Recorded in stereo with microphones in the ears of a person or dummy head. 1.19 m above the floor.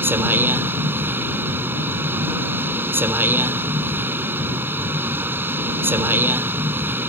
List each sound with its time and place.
0.0 s a vehicle: 10° right (ahead or behind)